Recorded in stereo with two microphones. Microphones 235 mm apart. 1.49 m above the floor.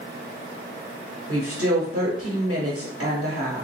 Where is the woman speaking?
85° right, 1.2 m.